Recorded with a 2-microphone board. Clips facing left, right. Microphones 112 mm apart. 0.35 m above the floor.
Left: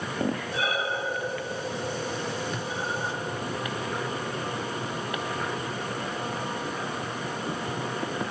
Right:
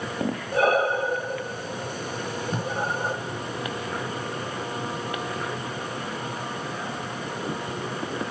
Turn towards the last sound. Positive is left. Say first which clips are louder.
# right 1 dB
turn(degrees=-35)  # may be behind; listen again after turning